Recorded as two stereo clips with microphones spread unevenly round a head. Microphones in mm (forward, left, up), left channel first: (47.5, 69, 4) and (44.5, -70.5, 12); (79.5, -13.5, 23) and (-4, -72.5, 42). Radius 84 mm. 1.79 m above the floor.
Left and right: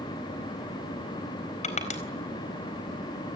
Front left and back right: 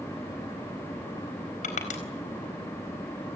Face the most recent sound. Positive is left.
turn(degrees=50)